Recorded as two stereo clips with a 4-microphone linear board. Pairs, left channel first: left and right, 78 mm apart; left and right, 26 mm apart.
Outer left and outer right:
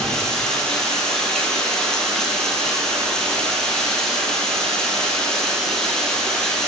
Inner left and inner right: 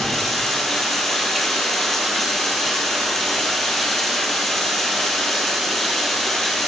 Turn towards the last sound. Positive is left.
turn(degrees=5)  # may be behind; listen again after turning